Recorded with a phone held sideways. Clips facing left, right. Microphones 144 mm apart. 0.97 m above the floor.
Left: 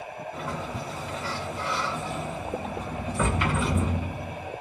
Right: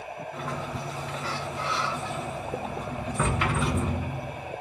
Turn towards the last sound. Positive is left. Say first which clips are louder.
# left 1 dB
turn(degrees=5)  # may be behind; listen again after turning